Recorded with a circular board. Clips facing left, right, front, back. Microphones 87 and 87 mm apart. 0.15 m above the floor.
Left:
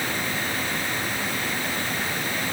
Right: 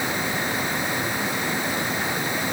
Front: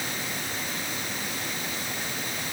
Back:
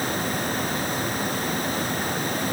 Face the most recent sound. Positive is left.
No sound to turn to.